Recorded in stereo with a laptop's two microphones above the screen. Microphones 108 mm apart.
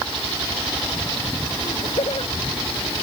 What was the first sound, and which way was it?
Laughter, 65° left (ahead or behind).